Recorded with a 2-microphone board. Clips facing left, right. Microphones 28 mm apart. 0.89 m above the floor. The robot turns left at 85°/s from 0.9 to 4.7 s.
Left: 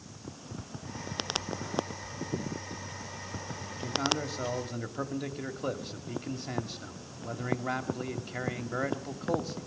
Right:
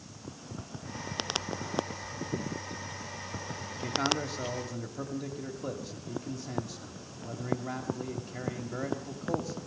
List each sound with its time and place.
3.8 s a man speaking: 145° right, 2 m; by 9.7 s 140° left, 2 m